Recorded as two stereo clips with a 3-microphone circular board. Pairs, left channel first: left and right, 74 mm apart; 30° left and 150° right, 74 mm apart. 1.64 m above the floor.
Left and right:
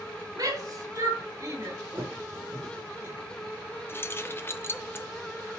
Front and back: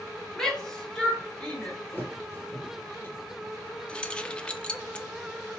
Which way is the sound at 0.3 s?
55° right.